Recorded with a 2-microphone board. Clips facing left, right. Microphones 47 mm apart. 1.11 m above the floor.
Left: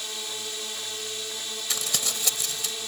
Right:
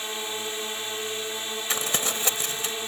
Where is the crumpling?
35° right (ahead or behind).